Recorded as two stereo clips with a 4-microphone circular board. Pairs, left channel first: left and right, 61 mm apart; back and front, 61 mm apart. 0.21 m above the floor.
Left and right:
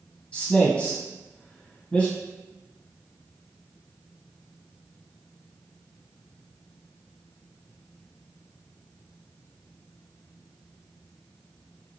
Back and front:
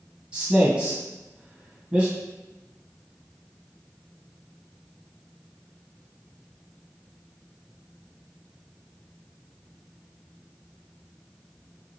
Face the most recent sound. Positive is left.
turn(degrees=50)